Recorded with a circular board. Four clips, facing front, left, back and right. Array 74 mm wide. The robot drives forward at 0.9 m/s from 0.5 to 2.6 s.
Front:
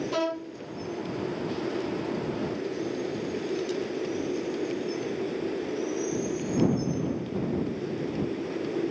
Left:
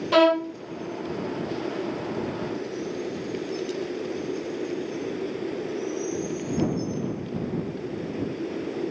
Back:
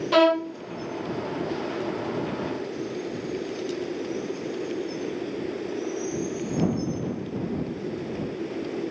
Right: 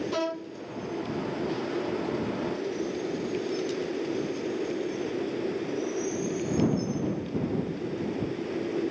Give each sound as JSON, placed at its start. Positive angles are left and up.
{"t": 0.1, "sound": "a violin", "azimuth_deg": 130}